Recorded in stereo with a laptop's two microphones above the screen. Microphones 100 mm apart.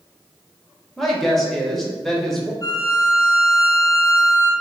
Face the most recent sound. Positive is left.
turn(degrees=35)  # may be behind; listen again after turning